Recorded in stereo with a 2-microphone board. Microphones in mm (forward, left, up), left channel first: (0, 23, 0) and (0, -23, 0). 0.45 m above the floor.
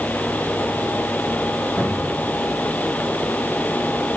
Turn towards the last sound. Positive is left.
turn(degrees=50)  # may be behind; listen again after turning